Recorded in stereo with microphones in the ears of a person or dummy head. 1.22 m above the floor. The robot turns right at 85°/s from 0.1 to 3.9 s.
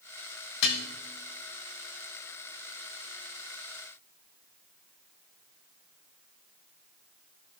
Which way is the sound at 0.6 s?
65° left (ahead or behind).